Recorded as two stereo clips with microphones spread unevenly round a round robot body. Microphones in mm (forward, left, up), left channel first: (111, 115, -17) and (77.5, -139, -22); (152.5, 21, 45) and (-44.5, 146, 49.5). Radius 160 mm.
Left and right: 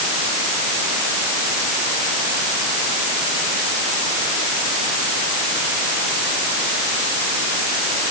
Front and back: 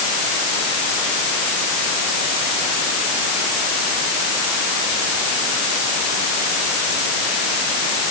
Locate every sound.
Only background noise.